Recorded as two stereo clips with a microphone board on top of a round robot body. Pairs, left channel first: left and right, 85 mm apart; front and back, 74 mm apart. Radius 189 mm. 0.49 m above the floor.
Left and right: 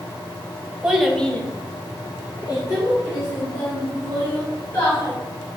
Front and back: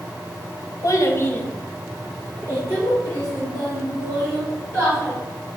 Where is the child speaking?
10° right, 1.1 m; by 5.1 s 140° left, 4 m.